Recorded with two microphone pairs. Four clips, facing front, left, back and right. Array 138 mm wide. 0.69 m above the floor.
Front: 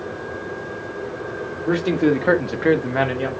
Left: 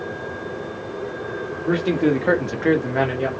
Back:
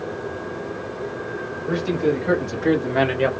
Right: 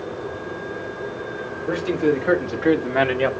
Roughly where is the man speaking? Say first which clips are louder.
Left 1 dB, front 3 dB; ahead.